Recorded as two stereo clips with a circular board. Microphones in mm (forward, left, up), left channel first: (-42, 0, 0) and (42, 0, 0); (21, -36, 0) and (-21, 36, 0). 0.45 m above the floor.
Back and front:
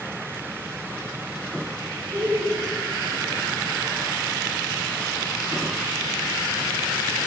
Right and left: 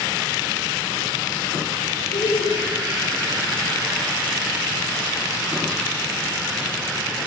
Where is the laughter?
60° right, 2.5 m.